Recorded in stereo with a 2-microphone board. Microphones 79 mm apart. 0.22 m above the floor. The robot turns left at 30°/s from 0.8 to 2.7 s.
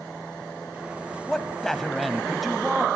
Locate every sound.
1.3 s a man speaking: 10° left (ahead or behind), 1.2 m; by 2.9 s 5° right (ahead or behind), 1.2 m